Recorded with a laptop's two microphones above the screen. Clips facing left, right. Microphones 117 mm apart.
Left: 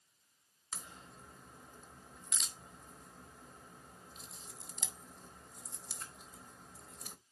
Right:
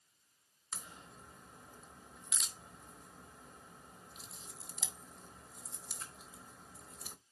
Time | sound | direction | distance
0.7 | a crack | 5° right (ahead or behind) | 0.8 m